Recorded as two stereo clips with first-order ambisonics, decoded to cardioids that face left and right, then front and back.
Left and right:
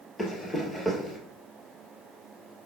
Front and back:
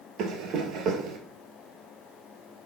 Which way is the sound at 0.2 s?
170° left.